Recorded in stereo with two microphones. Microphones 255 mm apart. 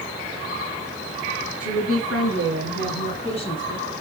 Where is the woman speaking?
65° left (ahead or behind), 2.5 m; by 3.9 s 10° left (ahead or behind), 3 m.